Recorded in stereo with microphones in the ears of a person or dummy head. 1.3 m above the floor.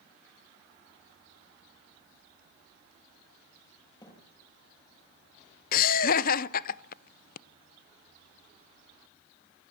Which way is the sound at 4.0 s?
25° left (ahead or behind).